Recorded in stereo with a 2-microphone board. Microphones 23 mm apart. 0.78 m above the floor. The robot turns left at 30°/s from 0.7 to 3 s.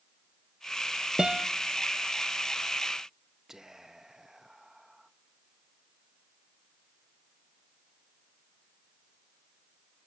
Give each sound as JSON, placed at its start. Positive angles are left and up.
{"t": 1.2, "sound": "a guitar", "side_deg": -30, "distance_m": 0.6}
{"t": 3.5, "sound": "whispering", "side_deg": -15, "distance_m": 0.6}